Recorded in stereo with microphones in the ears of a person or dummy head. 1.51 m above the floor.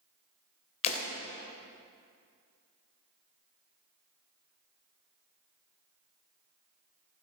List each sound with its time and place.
0.8 s breaking glass: 40° left (ahead or behind), 3 m